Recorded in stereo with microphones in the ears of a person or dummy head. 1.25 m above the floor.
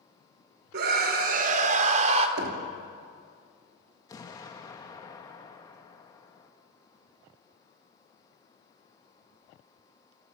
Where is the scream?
60° right (ahead or behind), 3.5 m; by 2.3 s 35° right (ahead or behind), 3 m.